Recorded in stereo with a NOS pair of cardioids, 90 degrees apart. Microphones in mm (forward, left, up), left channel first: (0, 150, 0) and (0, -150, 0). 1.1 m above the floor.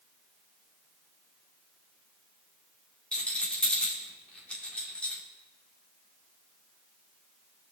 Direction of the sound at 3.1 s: 5° left.